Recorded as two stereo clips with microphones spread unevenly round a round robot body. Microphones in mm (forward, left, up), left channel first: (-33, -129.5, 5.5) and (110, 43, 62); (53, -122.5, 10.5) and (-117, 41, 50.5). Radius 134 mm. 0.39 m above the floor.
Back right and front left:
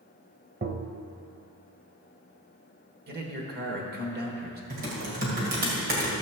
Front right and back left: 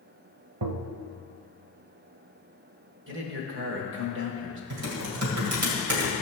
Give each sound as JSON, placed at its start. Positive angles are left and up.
{"t": 0.6, "sound": "tapping", "azimuth_deg": 110, "distance_m": 0.6}
{"t": 3.1, "sound": "a man speaking", "azimuth_deg": 100, "distance_m": 1.6}
{"t": 4.7, "sound": "typing on a keyboard", "azimuth_deg": 110, "distance_m": 2.0}